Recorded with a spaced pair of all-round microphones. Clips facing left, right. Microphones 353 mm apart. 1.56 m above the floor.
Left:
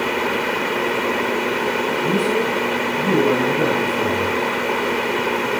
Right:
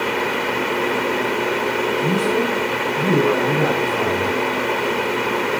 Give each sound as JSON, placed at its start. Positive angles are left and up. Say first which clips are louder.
{"t": 2.0, "sound": "a man speaking", "louder": "left 1 dB", "side_deg": -85, "distance_m": 5.5}